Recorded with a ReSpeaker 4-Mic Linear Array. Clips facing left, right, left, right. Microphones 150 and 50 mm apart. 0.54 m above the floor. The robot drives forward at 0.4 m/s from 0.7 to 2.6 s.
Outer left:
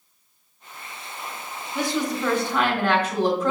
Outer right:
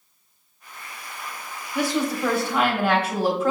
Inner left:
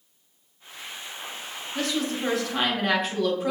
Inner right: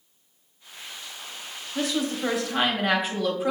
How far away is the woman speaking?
About 1.2 m.